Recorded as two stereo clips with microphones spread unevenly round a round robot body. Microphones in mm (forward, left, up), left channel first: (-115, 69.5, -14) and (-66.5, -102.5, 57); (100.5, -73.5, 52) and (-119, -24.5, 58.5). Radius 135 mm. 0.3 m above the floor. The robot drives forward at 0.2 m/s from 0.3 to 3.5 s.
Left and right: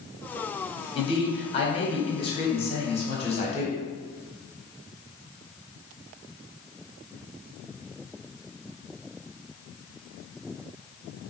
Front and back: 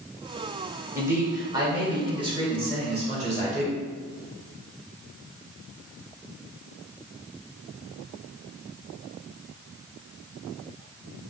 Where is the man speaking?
90° left, 1.4 m; by 3.8 s 115° left, 1.5 m.